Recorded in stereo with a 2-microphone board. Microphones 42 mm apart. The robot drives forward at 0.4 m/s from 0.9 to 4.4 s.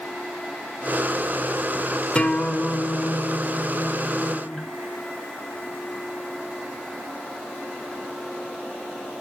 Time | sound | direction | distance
2.1 | a guitar | 30° left (ahead or behind) | 0.9 m